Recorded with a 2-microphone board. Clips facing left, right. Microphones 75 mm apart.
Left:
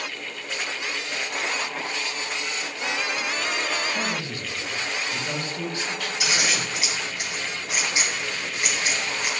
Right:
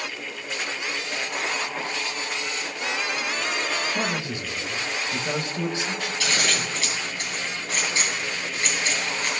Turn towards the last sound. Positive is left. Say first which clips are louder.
# even
turn(degrees=15)  # may be behind; listen again after turning